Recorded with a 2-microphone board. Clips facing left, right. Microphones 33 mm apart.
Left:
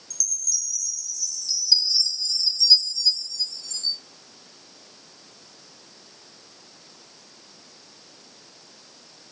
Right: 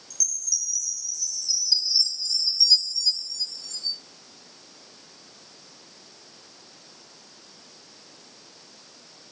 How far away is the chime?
About 1.2 m.